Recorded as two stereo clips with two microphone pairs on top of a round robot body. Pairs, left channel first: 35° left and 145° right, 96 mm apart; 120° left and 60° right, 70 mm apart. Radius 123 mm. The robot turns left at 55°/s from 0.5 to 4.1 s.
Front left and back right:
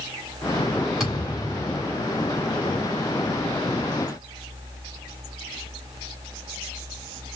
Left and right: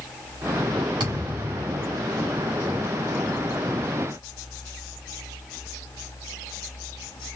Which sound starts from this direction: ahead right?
A thud, at 1.0 s.